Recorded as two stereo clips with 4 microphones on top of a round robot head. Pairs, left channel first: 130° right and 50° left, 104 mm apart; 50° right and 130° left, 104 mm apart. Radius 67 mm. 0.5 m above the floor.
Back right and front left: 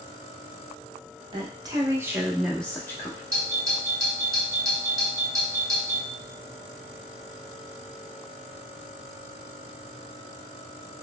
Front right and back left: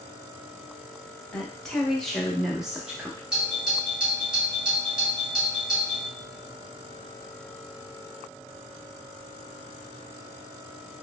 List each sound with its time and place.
1.3 s a woman speaking: 30° left, 1.0 m; by 3.2 s 155° right, 0.8 m
3.3 s a doorbell: 60° left, 1.7 m